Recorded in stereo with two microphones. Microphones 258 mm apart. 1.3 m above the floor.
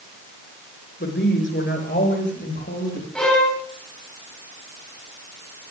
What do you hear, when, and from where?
1.0 s a woman speaking: 45° left (ahead or behind), 5 m; by 3.0 s 40° left (ahead or behind), 7 m
3.1 s a violin: 5° left (ahead or behind), 8.5 m